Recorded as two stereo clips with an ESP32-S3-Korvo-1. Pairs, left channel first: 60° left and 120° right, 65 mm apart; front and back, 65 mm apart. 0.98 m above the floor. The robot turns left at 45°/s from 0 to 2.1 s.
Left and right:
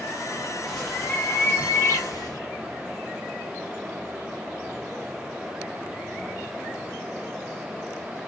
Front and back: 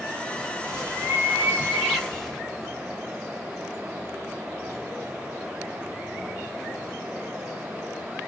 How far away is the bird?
About 2 m.